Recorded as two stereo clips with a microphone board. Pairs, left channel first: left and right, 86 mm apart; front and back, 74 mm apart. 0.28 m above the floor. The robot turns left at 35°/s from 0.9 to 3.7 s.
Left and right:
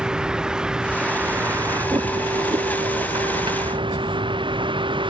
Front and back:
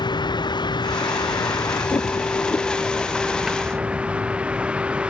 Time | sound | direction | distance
0.0 | a vehicle | 10° right | ?